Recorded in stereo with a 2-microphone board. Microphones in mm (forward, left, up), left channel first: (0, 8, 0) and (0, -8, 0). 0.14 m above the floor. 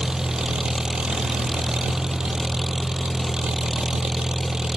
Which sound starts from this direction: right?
An engine running, at 0.0 s.